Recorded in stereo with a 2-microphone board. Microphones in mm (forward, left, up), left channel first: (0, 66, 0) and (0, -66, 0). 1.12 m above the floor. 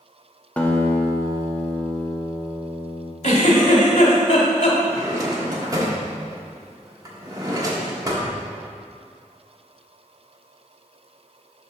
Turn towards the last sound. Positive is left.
turn(degrees=-25)  # may be behind; listen again after turning